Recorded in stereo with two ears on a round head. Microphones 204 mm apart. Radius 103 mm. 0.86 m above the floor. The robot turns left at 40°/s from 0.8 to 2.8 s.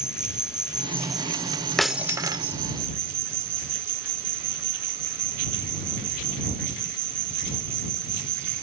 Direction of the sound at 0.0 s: 5° right.